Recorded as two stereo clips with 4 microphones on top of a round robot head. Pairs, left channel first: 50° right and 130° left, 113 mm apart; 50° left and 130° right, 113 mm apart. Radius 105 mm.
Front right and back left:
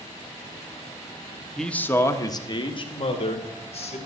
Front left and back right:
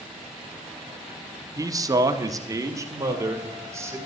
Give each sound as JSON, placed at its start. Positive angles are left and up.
{"t": 1.6, "sound": "a man speaking", "azimuth_deg": -130, "distance_m": 1.2}